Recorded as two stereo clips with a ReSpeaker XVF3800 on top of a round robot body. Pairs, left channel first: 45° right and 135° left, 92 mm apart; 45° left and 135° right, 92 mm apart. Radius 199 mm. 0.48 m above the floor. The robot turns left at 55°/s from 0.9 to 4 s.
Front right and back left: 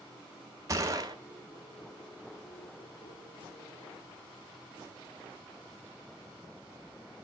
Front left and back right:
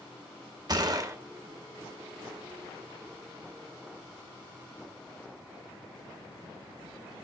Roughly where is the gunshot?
Behind.